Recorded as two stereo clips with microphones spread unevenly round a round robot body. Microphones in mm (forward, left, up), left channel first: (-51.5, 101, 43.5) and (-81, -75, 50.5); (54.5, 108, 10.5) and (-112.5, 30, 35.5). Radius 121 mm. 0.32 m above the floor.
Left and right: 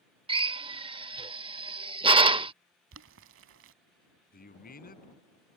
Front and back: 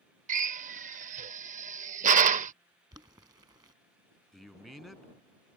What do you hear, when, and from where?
0.3 s a drill: 140° right
2.9 s boiling: 80° right
4.3 s a man speaking: 115° left